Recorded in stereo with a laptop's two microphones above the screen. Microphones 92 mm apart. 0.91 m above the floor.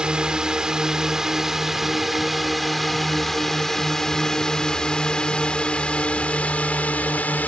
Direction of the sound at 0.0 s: 10° right (ahead or behind).